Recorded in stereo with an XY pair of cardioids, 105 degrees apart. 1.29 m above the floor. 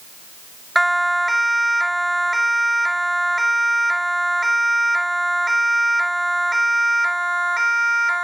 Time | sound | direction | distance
0.8 | a siren | 5° right | ?